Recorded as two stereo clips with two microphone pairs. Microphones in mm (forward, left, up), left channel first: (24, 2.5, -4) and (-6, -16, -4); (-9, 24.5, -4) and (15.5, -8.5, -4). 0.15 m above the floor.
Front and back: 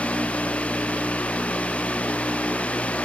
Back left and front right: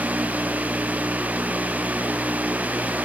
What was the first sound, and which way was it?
Only background noise.